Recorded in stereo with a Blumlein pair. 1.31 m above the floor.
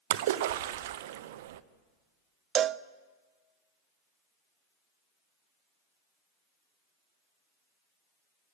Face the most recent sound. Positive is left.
turn(degrees=-25)